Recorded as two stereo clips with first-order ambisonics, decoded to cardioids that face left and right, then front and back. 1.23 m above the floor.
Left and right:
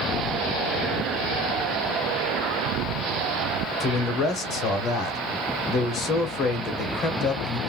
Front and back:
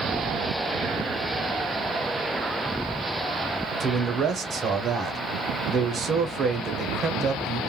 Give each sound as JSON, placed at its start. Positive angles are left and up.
{"t": 3.8, "sound": "a man speaking", "azimuth_deg": 130, "distance_m": 0.8}